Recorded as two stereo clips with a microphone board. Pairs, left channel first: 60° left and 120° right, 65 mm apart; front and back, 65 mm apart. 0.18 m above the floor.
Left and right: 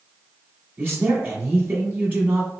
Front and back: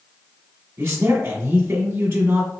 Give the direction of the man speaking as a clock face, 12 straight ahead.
5 o'clock.